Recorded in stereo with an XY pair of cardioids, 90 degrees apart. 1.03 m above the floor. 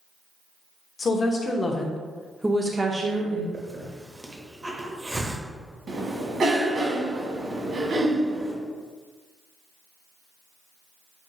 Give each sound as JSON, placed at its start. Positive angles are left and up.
{"t": 1.0, "sound": "a woman speaking", "azimuth_deg": 45, "distance_m": 1.0}
{"t": 3.5, "sound": "a hiss", "azimuth_deg": -25, "distance_m": 0.8}
{"t": 5.9, "sound": "a cough", "azimuth_deg": -60, "distance_m": 1.4}